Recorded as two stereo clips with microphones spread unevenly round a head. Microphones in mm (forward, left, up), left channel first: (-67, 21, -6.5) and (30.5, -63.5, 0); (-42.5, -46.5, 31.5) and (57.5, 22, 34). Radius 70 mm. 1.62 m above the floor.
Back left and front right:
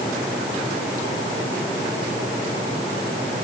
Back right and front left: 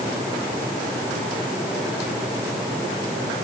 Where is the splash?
No splash in this recording.